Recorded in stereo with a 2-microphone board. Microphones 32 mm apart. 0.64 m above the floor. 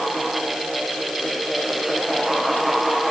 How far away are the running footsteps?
I don't hear running footsteps.